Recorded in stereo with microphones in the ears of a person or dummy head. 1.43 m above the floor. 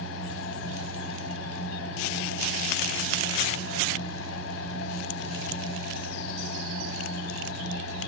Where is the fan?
75° left (ahead or behind), 1.0 m.